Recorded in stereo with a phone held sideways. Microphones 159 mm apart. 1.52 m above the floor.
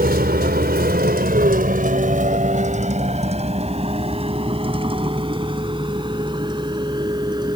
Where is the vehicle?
75° right (ahead or behind); by 7.6 s 25° right (ahead or behind).